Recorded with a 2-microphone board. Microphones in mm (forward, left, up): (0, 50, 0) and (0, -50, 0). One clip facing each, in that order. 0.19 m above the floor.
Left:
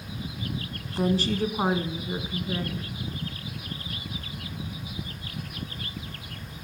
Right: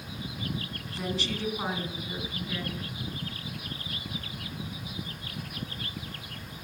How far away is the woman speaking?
About 1.6 m.